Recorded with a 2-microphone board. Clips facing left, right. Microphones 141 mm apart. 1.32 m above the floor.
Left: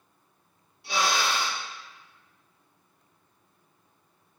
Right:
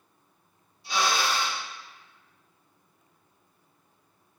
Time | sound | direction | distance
0.8 | a drill | 70° left (ahead or behind) | 1.5 m